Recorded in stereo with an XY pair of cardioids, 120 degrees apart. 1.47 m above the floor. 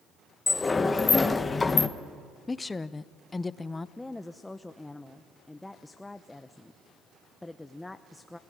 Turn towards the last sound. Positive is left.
turn(degrees=10)